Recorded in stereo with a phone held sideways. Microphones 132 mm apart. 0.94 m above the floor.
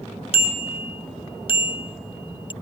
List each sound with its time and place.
0.3 s a bicycle bell: 50° left (ahead or behind); by 2.5 s 40° left (ahead or behind)